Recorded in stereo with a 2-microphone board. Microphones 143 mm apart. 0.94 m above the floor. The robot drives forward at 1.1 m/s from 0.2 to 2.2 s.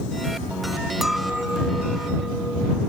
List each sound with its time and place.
1.0 s a clink: centre (ahead or behind)